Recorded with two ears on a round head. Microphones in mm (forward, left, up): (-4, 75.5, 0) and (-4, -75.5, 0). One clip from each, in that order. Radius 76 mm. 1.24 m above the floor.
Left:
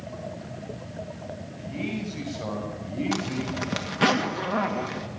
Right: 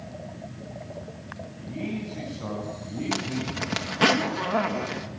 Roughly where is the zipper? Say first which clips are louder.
Right 2 dB; centre.